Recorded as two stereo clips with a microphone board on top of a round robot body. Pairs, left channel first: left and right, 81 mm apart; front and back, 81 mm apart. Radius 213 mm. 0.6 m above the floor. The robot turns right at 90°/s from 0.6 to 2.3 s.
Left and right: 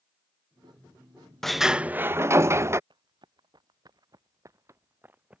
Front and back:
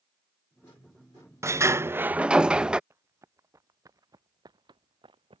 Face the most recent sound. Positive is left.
turn(degrees=-170)